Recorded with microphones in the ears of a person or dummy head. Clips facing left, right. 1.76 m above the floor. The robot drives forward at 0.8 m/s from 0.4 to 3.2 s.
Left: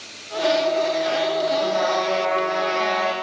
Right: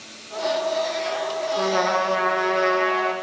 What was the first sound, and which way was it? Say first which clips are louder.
A trumpet: left 1 dB; 75° right (ahead or behind).